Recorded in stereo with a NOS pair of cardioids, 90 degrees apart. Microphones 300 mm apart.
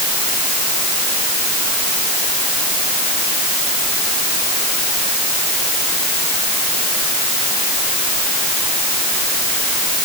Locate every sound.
Only background noise.